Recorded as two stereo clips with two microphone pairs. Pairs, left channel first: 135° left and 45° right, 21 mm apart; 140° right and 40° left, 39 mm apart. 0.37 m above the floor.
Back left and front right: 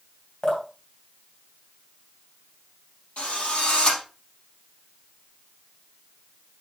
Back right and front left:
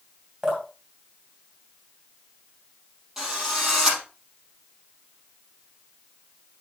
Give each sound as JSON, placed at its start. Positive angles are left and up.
{"t": 0.4, "sound": "dripping", "azimuth_deg": 105, "distance_m": 3.0}
{"t": 3.2, "sound": "a drill", "azimuth_deg": 115, "distance_m": 4.5}